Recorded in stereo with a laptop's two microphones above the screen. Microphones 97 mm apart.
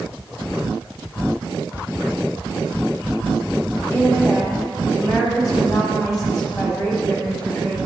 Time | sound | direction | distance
3.9 | a woman speaking | 35° left (ahead or behind) | 6 m